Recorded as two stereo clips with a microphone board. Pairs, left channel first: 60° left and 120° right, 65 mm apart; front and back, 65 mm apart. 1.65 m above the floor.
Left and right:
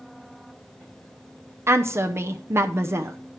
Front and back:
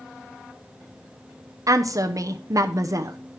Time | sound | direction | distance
1.7 | a woman speaking | 165° right | 0.8 m